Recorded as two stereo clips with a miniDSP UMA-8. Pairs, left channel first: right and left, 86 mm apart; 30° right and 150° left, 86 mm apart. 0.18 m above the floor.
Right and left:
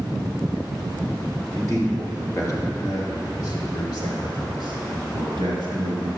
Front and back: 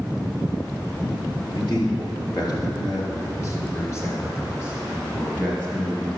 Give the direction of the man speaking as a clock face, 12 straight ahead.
1 o'clock.